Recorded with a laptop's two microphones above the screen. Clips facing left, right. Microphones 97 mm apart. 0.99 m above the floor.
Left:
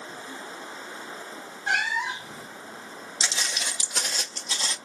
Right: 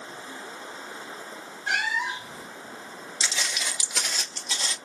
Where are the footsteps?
30° left (ahead or behind), 1.0 m; by 4.8 s 35° left (ahead or behind), 1.5 m.